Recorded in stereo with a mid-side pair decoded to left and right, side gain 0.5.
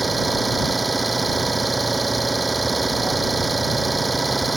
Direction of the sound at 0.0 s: 15° right.